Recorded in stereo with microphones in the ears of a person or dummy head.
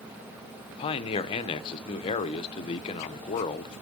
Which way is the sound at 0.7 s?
35° left (ahead or behind).